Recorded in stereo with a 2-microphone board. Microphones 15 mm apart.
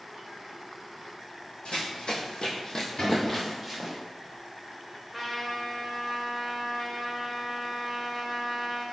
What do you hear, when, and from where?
1.6 s running footsteps: 75° left (ahead or behind), 1.0 m; by 4.0 s 10° right (ahead or behind), 1.0 m
3.0 s a cupboard door: 50° left (ahead or behind), 1.3 m
5.1 s a trumpet: 5° right (ahead or behind), 0.7 m